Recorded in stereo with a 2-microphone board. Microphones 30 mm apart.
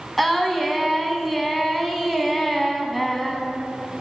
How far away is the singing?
About 0.7 m.